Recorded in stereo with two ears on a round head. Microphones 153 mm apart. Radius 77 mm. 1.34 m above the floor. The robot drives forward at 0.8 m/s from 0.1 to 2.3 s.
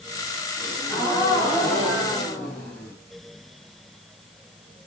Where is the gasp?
5° left (ahead or behind), 8 m.